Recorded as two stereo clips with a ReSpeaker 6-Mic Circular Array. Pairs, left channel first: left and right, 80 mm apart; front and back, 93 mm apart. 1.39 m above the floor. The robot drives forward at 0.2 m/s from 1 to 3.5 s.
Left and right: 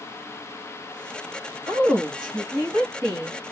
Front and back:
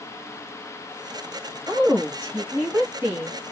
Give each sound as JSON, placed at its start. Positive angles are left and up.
{"t": 1.7, "sound": "a woman speaking", "azimuth_deg": -110, "distance_m": 2.0}